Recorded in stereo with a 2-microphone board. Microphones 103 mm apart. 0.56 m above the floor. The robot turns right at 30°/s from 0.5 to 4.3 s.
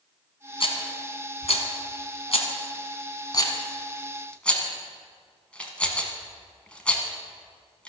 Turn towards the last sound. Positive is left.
turn(degrees=10)  # may be behind; listen again after turning